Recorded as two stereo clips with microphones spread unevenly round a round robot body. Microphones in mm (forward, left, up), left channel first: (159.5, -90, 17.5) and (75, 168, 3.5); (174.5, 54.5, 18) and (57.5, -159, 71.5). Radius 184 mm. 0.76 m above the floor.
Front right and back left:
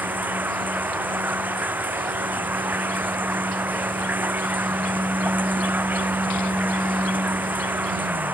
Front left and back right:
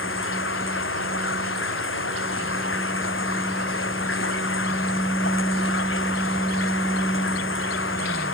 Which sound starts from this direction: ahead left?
Running water, at 0.0 s.